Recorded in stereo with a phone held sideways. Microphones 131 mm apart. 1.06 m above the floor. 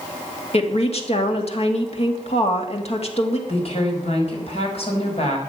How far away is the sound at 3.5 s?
About 5 m.